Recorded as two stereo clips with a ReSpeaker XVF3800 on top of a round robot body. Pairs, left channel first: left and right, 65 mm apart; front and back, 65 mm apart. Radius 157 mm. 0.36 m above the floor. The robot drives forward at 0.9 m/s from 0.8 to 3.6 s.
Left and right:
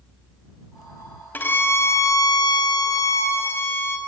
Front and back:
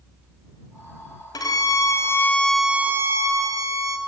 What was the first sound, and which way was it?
A violin, 25° left.